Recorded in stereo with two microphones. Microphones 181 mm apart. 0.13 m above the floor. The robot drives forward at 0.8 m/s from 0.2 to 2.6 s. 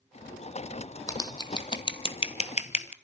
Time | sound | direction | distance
1.1 | scissors | 20° left (ahead or behind) | 2 m